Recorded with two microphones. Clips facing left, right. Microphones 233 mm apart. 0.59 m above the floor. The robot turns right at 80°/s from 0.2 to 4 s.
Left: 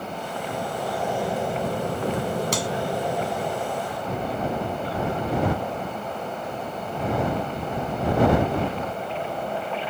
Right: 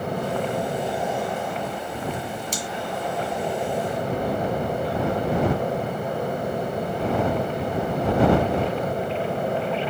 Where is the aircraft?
70° right; by 9.9 s 130° right.